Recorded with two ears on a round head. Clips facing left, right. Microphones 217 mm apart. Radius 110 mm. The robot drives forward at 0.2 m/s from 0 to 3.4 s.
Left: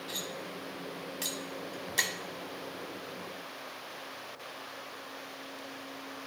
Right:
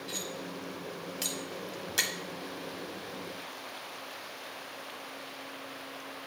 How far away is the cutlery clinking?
About 1.0 m.